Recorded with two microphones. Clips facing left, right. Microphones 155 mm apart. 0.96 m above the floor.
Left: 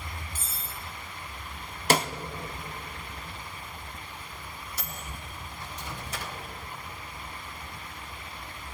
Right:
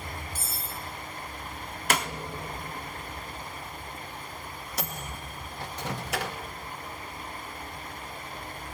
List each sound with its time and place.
0.3 s cutlery clinking: 10° right (ahead or behind), 1.6 m
1.9 s a snare drum: 30° left (ahead or behind), 0.6 m
4.8 s a microwave: 70° right (ahead or behind), 0.8 m